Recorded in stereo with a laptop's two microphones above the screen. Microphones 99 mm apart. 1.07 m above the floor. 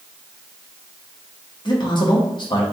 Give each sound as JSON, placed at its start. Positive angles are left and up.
{"t": 1.6, "sound": "a man speaking", "side_deg": 45, "distance_m": 1.2}